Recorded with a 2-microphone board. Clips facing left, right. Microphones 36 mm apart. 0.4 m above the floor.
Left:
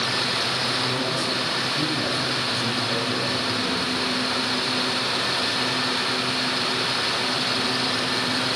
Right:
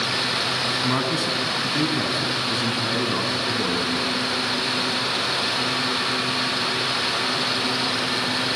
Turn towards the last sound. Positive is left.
turn(degrees=-70)  # may be behind; listen again after turning